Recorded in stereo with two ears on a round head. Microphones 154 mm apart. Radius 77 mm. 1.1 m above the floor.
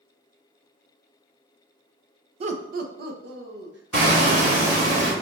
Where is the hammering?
55° right (ahead or behind), 1.2 m.